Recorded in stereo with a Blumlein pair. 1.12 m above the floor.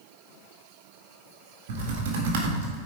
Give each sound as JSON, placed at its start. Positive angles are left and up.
{"t": 1.7, "sound": "typing on a keyboard", "azimuth_deg": -50, "distance_m": 1.9}